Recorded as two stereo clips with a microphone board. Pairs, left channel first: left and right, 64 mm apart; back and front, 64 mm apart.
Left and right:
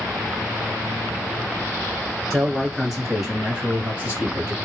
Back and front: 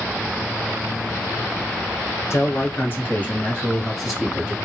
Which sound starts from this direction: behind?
A man speaking, at 2.3 s.